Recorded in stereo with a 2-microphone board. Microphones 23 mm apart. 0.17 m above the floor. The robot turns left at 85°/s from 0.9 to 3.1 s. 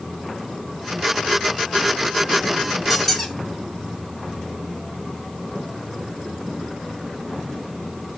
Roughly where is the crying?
I don't hear crying.